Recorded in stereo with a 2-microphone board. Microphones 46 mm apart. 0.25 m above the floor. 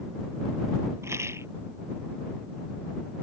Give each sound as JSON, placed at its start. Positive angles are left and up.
{"t": 1.0, "sound": "a rattle", "side_deg": -75}